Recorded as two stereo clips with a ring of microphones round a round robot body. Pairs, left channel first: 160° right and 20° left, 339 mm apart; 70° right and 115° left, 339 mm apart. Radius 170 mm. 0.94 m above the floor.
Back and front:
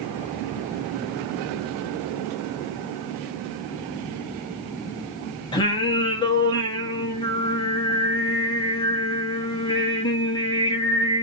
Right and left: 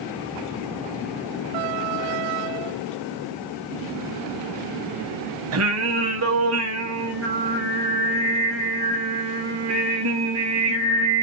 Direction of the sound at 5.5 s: 130° left.